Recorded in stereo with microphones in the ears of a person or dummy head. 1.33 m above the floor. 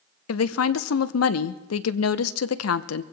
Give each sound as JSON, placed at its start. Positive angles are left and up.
{"t": 0.3, "sound": "a woman speaking", "side_deg": 85, "distance_m": 0.7}